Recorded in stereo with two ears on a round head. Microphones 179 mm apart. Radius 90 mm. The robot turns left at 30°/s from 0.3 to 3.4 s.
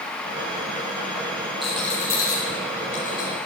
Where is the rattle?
Centre (ahead or behind), 9.5 m; by 3.4 s 50° left (ahead or behind), 9.5 m.